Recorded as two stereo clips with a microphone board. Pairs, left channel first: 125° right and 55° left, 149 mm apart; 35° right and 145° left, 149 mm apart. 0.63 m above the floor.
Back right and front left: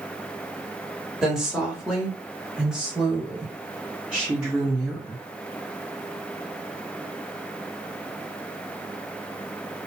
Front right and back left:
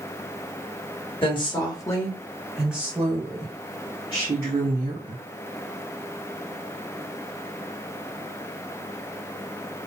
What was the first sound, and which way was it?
A woman speaking, 30° right.